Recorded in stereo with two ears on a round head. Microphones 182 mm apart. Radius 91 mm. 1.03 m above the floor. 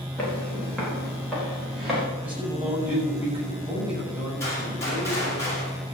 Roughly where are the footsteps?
Centre.